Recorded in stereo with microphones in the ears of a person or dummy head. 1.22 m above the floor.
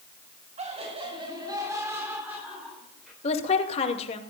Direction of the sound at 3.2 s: 40° left (ahead or behind).